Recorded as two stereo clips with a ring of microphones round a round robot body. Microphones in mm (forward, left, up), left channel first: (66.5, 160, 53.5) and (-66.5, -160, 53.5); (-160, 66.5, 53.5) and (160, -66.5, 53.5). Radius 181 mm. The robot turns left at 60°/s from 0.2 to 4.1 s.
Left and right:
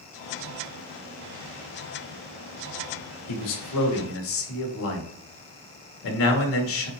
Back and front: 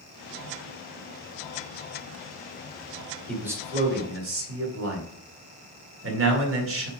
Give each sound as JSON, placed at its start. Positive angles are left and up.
{"t": 3.3, "sound": "a man speaking", "azimuth_deg": 70, "distance_m": 2.0}